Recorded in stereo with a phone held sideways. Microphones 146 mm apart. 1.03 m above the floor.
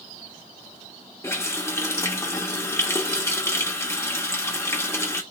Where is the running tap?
20° left (ahead or behind), 0.7 m.